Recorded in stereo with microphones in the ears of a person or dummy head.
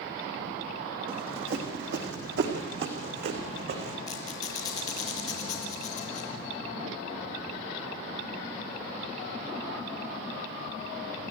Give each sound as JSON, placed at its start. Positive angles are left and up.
{"t": 1.1, "sound": "running footsteps", "side_deg": -55, "distance_m": 3.5}
{"t": 4.1, "sound": "a squeak", "side_deg": 20, "distance_m": 4.0}